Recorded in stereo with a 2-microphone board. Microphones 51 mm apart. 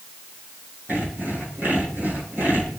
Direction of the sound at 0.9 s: 40° right (ahead or behind).